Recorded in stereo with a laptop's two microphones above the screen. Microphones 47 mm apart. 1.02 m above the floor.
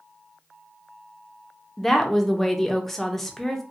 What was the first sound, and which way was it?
A woman speaking, 5° left (ahead or behind).